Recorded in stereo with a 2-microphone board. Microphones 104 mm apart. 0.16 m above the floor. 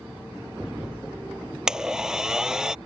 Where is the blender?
5° right (ahead or behind).